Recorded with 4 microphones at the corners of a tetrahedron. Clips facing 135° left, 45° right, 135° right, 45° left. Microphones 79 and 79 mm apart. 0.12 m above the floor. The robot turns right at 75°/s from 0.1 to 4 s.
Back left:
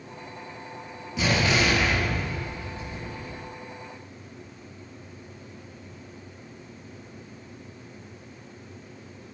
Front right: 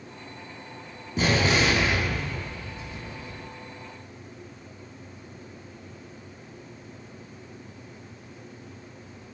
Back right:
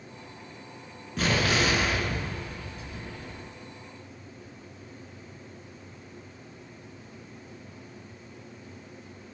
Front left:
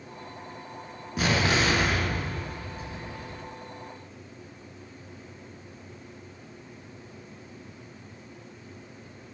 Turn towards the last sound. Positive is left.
turn(degrees=180)